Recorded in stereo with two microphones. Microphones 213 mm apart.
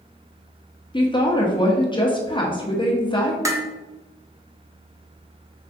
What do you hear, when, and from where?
0.9 s a woman speaking: 20° left (ahead or behind), 0.6 m
3.5 s dishes clattering: 15° right (ahead or behind), 0.6 m